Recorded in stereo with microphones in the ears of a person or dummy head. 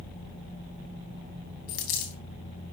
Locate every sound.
1.7 s a dropped coin: 50° left (ahead or behind), 3 m